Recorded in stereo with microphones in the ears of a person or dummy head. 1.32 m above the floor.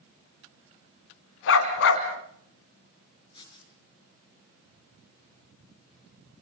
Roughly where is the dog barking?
Left.